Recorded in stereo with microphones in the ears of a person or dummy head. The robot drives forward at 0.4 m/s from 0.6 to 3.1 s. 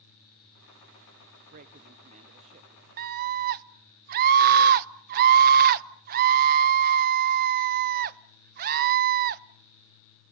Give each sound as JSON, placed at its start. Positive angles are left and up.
{"t": 1.5, "sound": "a man speaking", "side_deg": -50, "distance_m": 1.3}
{"t": 3.0, "sound": "a scream", "side_deg": -45, "distance_m": 1.2}